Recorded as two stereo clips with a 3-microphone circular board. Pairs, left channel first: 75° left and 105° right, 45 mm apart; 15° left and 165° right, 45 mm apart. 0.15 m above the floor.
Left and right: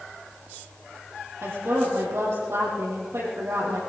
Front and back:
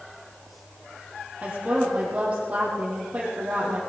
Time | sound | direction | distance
1.4 | a woman speaking | 105° right | 5.5 m